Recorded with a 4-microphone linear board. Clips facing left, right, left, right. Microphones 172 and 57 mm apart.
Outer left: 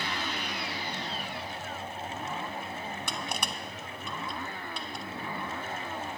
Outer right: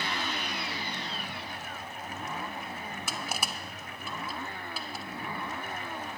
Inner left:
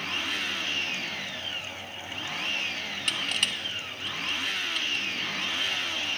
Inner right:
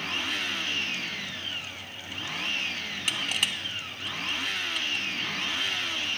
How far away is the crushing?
About 0.6 m.